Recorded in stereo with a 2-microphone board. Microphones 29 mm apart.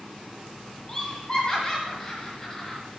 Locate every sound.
0.9 s laughter: 30° left (ahead or behind), 1.3 m